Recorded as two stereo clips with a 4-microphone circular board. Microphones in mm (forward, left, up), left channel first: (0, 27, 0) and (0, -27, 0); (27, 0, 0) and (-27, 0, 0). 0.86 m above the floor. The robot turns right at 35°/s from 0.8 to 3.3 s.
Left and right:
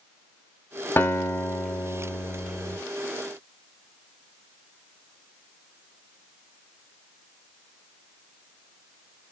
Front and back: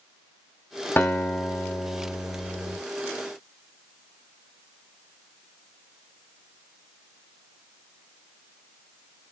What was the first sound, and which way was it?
A guitar, 50° left.